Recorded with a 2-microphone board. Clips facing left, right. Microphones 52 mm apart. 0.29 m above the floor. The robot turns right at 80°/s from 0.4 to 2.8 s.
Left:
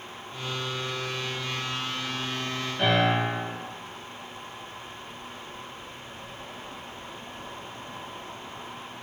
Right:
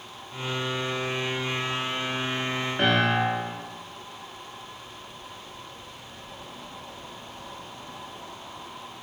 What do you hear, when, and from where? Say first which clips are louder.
2.8 s a piano: even; 45° right (ahead or behind), 0.8 m